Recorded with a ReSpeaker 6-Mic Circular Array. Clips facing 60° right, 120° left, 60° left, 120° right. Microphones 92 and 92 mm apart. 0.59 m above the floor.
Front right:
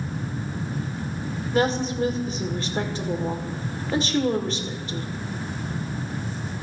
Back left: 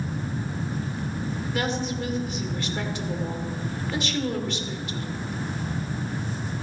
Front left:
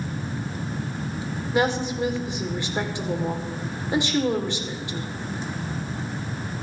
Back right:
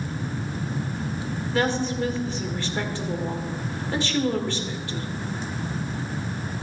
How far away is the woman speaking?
About 1.7 m.